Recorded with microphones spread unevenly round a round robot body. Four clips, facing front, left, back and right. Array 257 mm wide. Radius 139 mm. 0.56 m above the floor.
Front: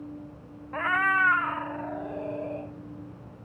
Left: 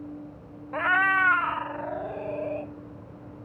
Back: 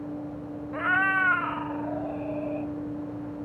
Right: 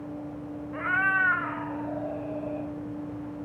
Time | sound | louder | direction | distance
0.7 | a cat meowing | left 3 dB, even | 85° left | 0.5 m